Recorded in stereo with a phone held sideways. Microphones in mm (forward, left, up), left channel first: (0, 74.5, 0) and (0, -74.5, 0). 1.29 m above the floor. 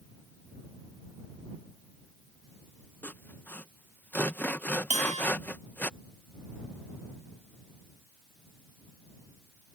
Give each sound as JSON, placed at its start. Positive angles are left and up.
{"t": 3.0, "sound": "sawing", "side_deg": 10}
{"t": 4.9, "sound": "a bell", "side_deg": -50}